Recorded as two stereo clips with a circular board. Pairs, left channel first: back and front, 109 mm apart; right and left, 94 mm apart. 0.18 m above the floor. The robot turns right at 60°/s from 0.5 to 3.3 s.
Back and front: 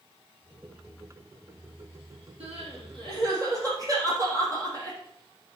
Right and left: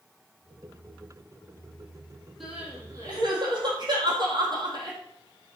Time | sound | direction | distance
2.4 | crying | straight ahead | 3.5 m